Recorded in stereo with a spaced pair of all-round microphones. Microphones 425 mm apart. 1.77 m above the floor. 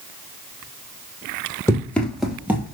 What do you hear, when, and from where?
1.7 s running footsteps: 5° left (ahead or behind), 2 m; by 2.8 s 10° right (ahead or behind), 1.9 m